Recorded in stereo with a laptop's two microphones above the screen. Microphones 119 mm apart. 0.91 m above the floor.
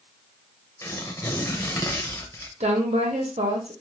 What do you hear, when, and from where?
0.8 s tearing paper: 25° left (ahead or behind), 0.7 m
2.6 s a woman speaking: 65° right (ahead or behind), 0.9 m